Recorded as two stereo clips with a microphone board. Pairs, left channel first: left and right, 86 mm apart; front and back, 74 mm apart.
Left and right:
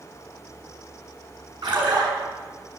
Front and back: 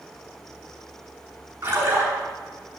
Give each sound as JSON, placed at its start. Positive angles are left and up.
{"t": 1.6, "sound": "a splash", "azimuth_deg": -120, "distance_m": 8.0}